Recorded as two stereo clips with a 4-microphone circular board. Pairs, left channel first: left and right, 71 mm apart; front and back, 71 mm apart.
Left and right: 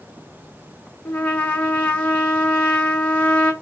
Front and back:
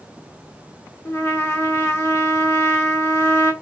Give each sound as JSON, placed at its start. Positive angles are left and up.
{"t": 1.1, "sound": "a trumpet", "azimuth_deg": 35, "distance_m": 0.8}